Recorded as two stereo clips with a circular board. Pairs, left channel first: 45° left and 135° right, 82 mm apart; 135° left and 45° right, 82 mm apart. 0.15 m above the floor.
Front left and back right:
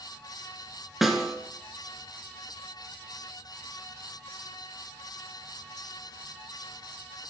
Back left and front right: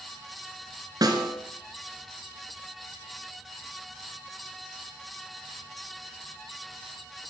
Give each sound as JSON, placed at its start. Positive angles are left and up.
{"t": 1.0, "sound": "a snare drum", "azimuth_deg": -50, "distance_m": 2.0}